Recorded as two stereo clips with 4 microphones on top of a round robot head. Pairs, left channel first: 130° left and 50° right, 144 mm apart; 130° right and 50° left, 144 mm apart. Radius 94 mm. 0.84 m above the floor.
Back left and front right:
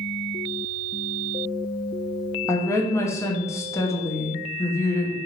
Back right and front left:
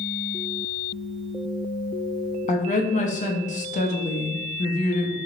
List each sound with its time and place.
2.5 s a woman speaking: 160° right, 0.8 m